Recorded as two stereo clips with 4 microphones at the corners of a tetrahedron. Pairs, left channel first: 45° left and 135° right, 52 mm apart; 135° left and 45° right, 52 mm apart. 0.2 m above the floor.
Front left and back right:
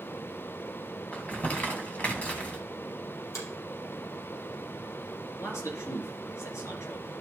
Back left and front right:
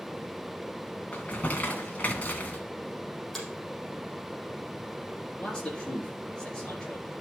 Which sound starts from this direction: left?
Crumpling, at 1.1 s.